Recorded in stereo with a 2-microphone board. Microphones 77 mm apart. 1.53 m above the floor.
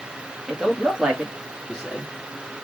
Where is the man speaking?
10° right (ahead or behind), 1.6 m.